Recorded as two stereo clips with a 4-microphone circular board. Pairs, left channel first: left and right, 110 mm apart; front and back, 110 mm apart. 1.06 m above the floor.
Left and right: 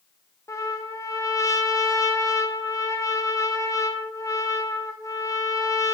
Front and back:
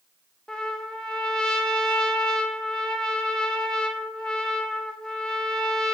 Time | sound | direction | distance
0.5 | a trumpet | 75° left | 0.7 m